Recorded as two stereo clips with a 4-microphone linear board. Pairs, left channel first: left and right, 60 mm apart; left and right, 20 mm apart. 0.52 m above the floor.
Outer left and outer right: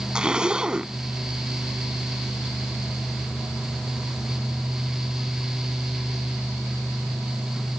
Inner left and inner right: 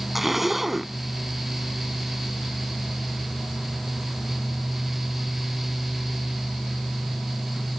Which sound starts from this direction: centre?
A zipper, at 0.1 s.